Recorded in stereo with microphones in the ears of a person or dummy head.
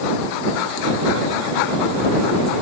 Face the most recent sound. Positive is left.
No sound to turn to.